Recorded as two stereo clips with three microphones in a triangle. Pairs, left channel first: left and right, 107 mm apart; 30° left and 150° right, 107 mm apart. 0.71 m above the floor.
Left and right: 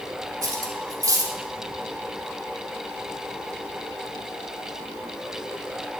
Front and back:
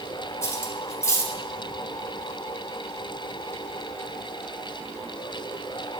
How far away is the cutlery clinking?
About 0.9 m.